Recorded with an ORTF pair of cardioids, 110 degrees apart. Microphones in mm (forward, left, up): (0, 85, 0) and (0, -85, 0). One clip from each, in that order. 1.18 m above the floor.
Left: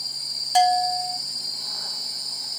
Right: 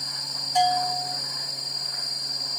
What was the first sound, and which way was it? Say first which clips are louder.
A bell: left 3 dB; 60° left.